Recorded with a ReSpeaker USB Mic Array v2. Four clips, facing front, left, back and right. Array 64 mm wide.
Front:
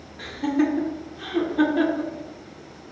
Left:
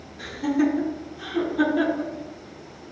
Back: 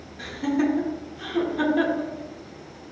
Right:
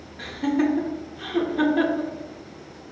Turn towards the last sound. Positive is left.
turn(degrees=-55)